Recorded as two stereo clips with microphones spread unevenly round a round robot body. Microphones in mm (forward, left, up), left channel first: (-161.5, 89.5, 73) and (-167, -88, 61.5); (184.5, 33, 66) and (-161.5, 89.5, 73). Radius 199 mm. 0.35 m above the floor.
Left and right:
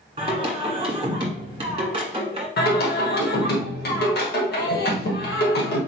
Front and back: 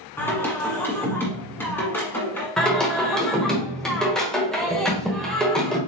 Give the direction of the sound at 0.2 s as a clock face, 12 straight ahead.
3 o'clock.